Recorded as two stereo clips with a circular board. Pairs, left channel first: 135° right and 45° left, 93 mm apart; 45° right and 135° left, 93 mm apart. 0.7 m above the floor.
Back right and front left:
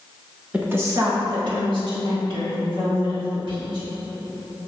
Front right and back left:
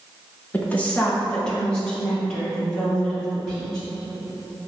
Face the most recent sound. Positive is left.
turn(degrees=45)